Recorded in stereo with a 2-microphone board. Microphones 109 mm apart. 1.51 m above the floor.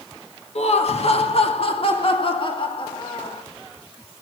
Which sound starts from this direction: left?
Laughter, at 0.6 s.